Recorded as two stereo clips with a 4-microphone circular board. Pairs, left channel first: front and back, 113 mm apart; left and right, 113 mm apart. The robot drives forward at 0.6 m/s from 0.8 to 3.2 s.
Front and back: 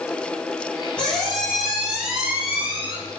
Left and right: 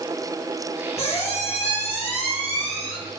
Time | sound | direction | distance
1.0 | a squeak | 80° left | 2.5 m